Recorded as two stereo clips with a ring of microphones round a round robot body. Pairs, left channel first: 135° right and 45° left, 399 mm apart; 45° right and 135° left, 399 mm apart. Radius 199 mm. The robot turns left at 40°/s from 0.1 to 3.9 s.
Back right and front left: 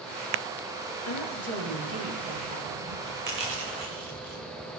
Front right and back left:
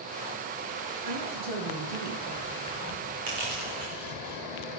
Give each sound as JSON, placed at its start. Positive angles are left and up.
{"t": 1.1, "sound": "a woman speaking", "azimuth_deg": 170, "distance_m": 8.5}
{"t": 3.3, "sound": "crushing", "azimuth_deg": 110, "distance_m": 7.0}